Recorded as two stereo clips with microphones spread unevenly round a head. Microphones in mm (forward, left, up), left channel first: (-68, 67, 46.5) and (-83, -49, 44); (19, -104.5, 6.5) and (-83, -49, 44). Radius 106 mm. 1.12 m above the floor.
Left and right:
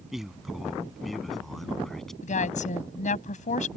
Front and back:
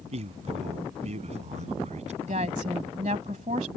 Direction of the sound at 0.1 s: 175° left.